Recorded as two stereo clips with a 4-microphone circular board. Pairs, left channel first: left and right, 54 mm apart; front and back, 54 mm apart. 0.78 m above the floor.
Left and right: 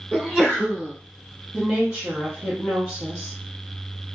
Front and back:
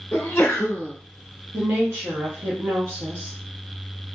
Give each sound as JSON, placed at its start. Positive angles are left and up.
{"t": 0.1, "sound": "a sneeze", "azimuth_deg": -10, "distance_m": 1.0}
{"t": 1.5, "sound": "a woman speaking", "azimuth_deg": -155, "distance_m": 1.0}